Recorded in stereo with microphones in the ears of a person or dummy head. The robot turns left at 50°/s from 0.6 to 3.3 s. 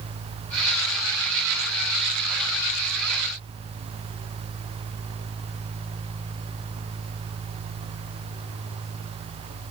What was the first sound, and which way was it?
Only background noise.